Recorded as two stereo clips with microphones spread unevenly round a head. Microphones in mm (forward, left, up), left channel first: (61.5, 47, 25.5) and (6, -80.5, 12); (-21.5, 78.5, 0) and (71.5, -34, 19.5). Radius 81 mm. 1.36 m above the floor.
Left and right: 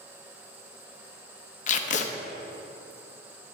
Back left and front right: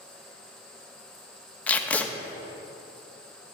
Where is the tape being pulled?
45° left, 0.9 m.